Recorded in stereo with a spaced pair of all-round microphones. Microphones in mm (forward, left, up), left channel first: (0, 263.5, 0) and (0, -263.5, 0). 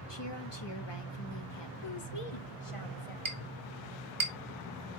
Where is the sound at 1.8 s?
70° left (ahead or behind), 1.5 m.